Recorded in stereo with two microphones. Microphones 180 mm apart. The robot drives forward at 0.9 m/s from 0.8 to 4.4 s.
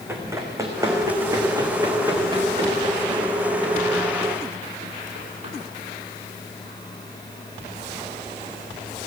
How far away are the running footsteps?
About 4.5 m.